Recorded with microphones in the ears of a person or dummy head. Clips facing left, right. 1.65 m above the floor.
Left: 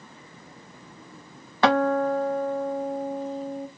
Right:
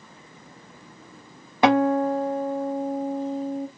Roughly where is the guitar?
Centre.